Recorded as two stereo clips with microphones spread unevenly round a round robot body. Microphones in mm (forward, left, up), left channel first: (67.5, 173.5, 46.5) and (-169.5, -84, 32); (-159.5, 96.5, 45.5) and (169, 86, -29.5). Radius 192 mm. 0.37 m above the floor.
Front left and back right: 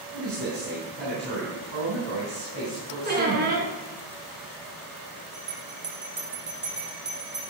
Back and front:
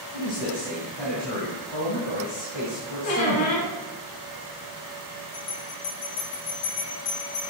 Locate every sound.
0.1 s a man speaking: 175° right, 3.5 m
3.0 s a squeak: 165° left, 3 m
5.3 s a bell: 170° left, 4.5 m